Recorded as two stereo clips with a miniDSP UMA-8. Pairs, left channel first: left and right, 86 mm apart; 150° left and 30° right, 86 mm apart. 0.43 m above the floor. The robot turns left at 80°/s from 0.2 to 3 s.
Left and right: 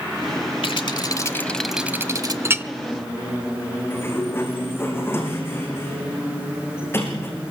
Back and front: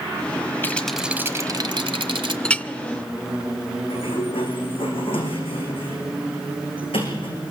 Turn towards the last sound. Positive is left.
turn(degrees=155)